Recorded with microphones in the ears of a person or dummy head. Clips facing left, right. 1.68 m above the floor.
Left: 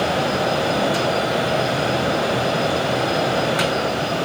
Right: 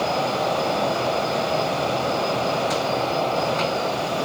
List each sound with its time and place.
Only background noise.